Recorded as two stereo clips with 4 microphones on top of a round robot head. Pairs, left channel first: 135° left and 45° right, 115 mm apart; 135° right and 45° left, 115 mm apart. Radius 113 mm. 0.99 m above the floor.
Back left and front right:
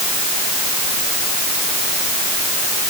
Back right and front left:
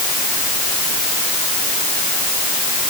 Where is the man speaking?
No man speaking in this recording.